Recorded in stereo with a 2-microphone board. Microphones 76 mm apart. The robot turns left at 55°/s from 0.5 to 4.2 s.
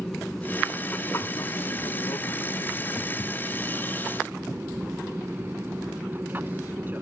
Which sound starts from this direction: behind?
An aircraft, at 0.0 s.